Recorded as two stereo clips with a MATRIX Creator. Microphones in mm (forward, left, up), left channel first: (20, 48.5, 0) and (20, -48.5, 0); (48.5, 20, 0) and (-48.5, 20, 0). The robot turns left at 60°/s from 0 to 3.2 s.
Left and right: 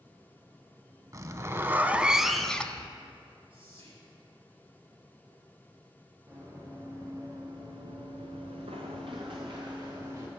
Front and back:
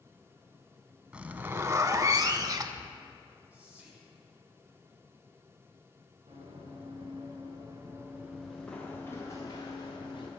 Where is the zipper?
105° right, 0.5 m; by 3.0 s 145° left, 0.5 m.